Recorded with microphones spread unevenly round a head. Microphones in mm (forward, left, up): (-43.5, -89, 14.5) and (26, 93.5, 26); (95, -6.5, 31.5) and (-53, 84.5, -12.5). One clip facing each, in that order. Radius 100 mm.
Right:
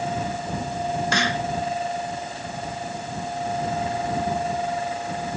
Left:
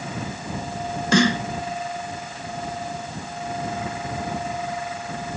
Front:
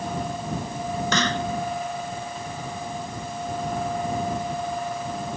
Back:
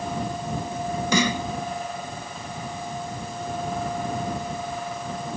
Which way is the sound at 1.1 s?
65° left.